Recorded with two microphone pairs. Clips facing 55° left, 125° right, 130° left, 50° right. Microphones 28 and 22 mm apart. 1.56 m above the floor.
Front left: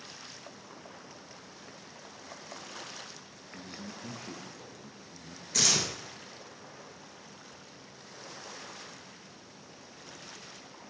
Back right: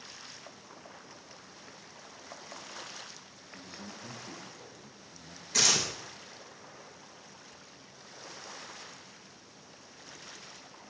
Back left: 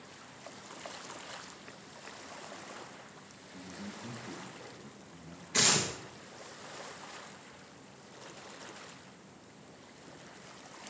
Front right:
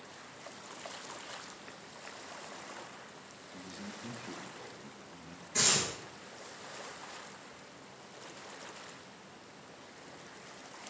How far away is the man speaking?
About 1.8 m.